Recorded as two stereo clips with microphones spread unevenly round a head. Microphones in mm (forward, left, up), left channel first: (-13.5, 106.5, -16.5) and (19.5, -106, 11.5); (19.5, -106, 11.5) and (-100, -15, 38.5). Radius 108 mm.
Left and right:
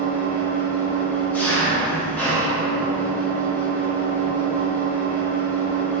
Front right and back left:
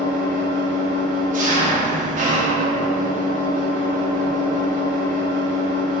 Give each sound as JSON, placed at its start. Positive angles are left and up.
{"t": 0.0, "sound": "an engine running", "azimuth_deg": 180, "distance_m": 0.8}